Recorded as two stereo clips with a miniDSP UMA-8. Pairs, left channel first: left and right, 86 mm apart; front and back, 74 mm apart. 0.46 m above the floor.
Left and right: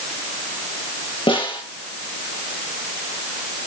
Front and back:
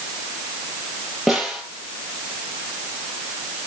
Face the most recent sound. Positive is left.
turn(degrees=90)